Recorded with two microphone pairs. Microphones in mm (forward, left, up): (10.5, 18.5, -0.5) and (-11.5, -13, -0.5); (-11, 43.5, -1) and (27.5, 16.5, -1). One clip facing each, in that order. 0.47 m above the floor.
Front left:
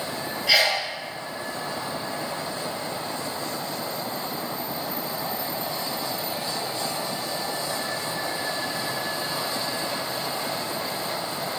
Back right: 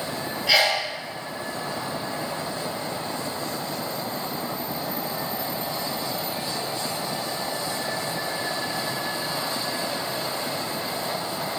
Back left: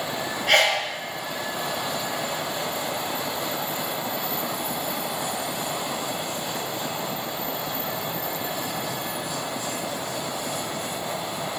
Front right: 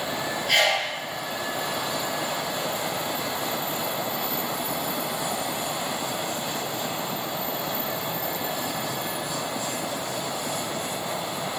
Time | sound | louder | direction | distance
0.5 | a sneeze | even, back left 2 dB | 155° left | 2.0 m